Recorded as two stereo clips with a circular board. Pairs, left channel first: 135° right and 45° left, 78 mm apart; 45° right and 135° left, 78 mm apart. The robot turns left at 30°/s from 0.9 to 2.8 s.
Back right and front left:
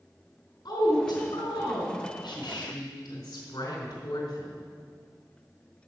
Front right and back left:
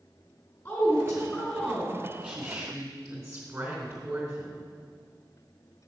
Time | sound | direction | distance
0.7 | a woman speaking | 115° right | 3.5 m